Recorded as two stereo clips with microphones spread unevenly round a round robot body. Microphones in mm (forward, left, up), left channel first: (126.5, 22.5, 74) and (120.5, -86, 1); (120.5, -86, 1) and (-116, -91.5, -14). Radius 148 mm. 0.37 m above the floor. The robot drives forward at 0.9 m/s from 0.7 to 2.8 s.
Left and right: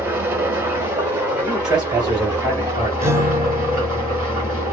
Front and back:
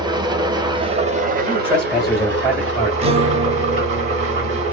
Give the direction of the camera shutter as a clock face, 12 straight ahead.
I don't hear a camera shutter.